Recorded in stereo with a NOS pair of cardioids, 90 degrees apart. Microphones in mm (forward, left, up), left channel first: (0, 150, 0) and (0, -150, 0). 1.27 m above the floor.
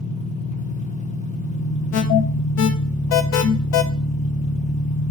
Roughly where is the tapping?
I don't hear tapping.